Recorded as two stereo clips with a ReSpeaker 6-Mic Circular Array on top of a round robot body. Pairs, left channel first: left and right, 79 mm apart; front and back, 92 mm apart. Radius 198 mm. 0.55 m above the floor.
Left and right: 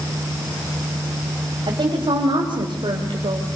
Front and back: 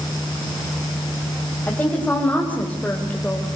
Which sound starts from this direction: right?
A woman speaking, at 1.7 s.